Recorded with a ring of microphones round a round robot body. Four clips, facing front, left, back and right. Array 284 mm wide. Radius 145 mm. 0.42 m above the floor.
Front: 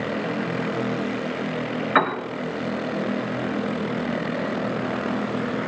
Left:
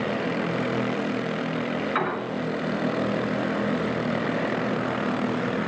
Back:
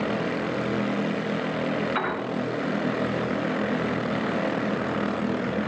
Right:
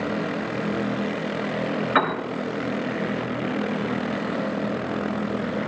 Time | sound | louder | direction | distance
1.9 | a piano | right 6 dB, front 7 dB | 30° right | 4.5 m